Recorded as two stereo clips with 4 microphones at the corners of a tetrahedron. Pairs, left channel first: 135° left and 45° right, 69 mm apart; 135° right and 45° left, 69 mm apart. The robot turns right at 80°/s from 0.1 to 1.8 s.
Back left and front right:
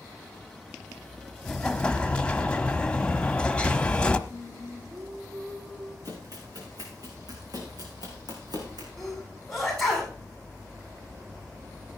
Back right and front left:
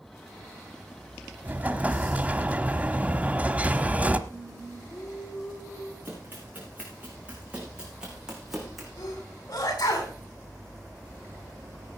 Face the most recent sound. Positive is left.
turn(degrees=-140)